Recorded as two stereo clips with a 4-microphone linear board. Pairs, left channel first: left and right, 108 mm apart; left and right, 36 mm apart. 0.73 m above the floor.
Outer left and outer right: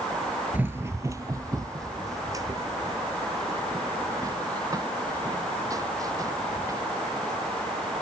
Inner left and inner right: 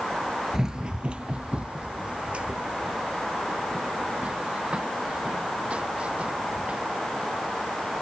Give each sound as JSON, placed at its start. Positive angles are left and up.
{"t": 0.5, "sound": "running footsteps", "side_deg": -15}